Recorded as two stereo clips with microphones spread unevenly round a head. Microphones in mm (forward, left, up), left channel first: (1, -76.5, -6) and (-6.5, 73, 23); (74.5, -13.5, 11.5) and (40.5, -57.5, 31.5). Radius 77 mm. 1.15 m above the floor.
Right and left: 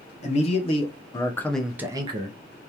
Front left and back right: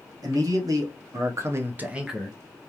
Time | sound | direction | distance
0.2 | a man speaking | 115° right | 1.0 m